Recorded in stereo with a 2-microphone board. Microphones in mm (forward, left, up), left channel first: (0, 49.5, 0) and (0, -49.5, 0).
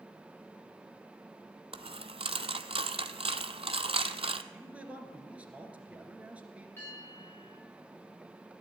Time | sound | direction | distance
1.7 | a dropped coin | 70° right (ahead or behind) | 0.7 m
4.5 | a man speaking | 15° right (ahead or behind) | 2.5 m
6.8 | a bell | 25° left (ahead or behind) | 9 m